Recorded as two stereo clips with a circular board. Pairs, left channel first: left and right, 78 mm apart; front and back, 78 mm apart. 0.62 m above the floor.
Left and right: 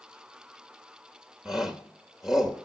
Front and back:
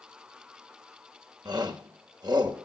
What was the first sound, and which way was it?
A shout, 175° right.